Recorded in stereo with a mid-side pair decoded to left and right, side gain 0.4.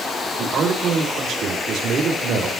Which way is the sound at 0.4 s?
70° right.